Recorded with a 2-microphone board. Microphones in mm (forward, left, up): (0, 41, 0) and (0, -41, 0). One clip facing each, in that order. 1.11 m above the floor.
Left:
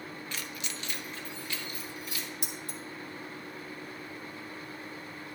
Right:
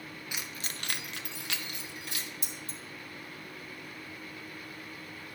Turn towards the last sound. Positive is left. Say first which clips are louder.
# left 3 dB
turn(degrees=70)  # may be behind; listen again after turning